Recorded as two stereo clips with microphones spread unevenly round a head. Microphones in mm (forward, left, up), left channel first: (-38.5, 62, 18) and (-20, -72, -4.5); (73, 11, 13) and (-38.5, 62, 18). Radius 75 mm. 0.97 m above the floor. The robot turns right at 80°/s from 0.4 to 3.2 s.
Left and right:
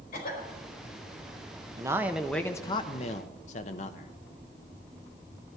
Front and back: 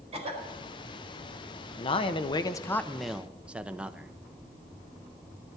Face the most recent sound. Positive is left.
turn(degrees=75)